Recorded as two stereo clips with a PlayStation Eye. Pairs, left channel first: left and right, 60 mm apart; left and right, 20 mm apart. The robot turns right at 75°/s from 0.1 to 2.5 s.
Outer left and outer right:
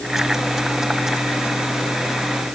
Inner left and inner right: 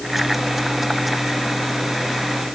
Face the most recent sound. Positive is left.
No sound to turn to.